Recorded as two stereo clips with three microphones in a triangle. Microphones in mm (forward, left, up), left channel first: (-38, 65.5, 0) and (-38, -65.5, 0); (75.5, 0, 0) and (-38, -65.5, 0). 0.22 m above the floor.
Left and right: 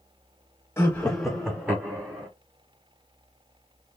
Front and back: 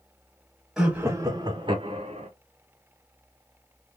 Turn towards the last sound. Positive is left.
turn(degrees=-155)